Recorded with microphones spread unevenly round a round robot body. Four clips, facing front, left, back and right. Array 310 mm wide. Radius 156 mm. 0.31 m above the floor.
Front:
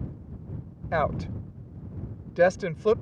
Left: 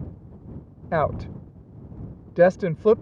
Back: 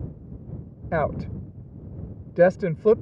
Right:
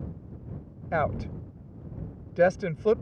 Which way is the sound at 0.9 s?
140° left.